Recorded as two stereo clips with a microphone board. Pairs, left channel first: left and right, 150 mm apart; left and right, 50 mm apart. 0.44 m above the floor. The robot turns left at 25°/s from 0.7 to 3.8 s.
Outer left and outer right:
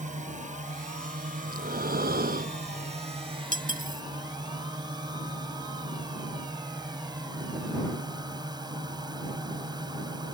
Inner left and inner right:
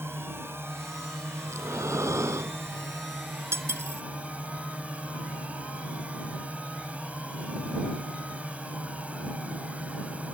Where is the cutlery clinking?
65° right (ahead or behind); by 4.0 s 70° right (ahead or behind).